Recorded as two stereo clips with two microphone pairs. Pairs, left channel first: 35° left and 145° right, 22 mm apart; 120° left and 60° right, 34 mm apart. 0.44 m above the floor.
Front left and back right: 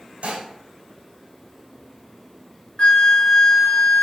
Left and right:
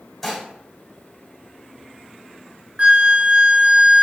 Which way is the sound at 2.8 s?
15° right.